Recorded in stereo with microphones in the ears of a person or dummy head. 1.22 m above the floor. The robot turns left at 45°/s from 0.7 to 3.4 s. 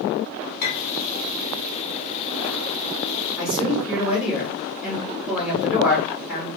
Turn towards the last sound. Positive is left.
turn(degrees=-5)  # may be behind; listen again after turning